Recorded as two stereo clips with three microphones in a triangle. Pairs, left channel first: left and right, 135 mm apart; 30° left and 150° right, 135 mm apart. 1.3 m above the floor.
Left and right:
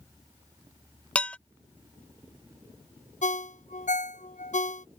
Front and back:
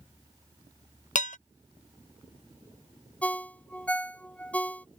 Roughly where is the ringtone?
Left.